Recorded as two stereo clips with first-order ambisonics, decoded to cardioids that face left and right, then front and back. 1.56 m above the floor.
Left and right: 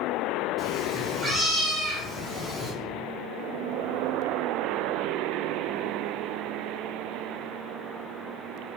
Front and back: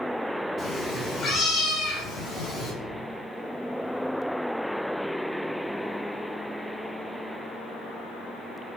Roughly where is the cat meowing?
Ahead.